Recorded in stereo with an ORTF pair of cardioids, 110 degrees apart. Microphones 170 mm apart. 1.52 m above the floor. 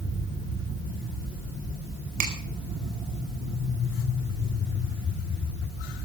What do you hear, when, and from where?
2.2 s a finger snap: 55° right, 4.5 m